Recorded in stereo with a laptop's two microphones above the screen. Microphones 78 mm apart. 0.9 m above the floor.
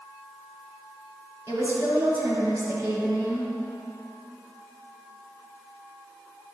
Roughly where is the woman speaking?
Right.